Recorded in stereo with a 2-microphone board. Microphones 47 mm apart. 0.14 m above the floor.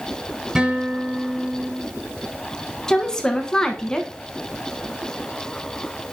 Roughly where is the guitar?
Centre.